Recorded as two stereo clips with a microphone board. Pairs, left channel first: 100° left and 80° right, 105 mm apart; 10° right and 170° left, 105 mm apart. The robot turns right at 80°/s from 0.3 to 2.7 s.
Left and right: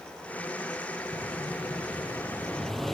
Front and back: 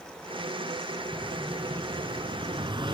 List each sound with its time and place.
1.1 s an explosion: 60° left, 0.8 m; by 2.9 s 170° right, 0.8 m